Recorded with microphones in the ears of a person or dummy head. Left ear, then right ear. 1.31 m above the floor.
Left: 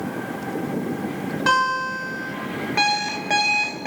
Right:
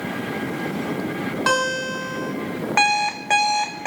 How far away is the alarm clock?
About 1.4 m.